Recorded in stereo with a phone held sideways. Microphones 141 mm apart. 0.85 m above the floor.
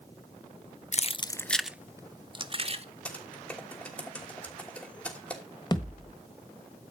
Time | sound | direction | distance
0.9 | keys jangling | 50° left (ahead or behind) | 0.5 m
3.0 | typing on a keyboard | 5° left (ahead or behind) | 3 m
5.7 | a thud | 30° left (ahead or behind) | 1.5 m